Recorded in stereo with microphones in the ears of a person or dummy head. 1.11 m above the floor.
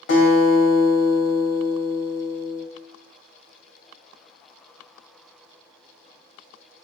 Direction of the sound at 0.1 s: 55° left (ahead or behind).